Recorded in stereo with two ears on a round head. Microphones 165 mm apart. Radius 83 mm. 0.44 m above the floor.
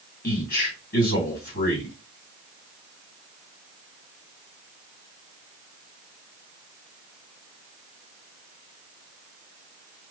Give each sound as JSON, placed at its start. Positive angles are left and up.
{"t": 0.2, "sound": "a man speaking", "side_deg": 50, "distance_m": 2.5}